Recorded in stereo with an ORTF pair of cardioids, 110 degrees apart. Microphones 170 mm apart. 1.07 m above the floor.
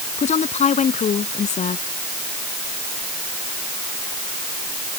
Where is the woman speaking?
45° left.